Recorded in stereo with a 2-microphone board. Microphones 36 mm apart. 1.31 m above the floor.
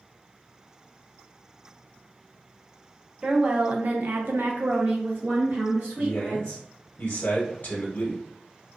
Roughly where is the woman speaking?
Right.